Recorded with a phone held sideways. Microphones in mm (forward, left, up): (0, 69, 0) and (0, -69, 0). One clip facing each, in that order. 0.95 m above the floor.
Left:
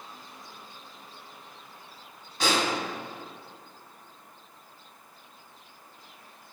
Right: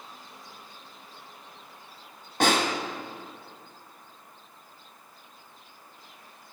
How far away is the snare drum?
About 1.6 m.